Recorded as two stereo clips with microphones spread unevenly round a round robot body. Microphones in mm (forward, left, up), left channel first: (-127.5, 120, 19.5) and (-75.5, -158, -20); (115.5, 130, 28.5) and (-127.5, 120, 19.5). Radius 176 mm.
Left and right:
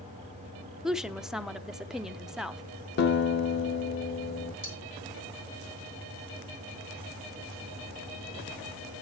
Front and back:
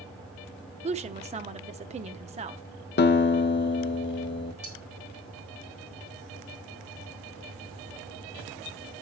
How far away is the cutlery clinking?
About 5 m.